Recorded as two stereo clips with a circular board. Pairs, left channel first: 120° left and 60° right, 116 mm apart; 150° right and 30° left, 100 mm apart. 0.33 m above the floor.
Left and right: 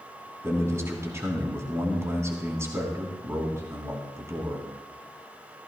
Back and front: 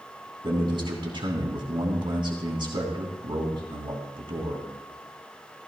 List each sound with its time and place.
0.4 s a man speaking: straight ahead, 3 m